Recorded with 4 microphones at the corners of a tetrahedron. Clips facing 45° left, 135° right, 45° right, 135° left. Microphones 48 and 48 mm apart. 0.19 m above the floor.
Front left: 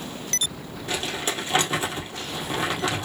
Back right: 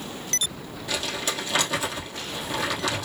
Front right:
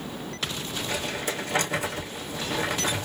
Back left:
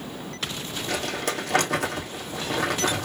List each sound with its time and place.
0.9 s crumpling: 110° left, 2.5 m